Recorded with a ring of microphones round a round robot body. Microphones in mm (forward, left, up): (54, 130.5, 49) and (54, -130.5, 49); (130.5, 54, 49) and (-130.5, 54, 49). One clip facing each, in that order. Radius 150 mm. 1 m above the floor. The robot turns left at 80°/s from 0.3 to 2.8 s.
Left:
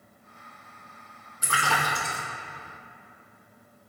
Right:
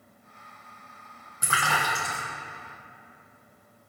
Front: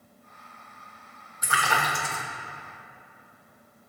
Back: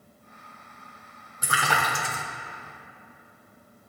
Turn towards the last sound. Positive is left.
turn(degrees=130)